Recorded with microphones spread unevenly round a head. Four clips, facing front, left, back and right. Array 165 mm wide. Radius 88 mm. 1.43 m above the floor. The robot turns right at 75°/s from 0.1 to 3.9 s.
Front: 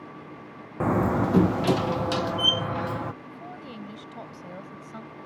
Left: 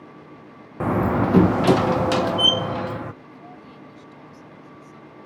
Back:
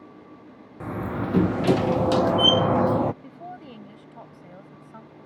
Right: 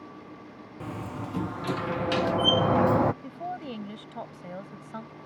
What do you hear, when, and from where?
0.8 s a door slam: 50° left; by 3.1 s 135° right
3.2 s a woman speaking: 105° right; by 5.2 s 55° right